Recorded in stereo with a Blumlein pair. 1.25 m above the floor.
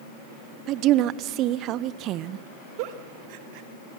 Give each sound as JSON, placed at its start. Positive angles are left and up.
{"t": 0.7, "sound": "a woman speaking", "azimuth_deg": -35, "distance_m": 0.5}
{"t": 2.8, "sound": "a giggle", "azimuth_deg": -45, "distance_m": 1.3}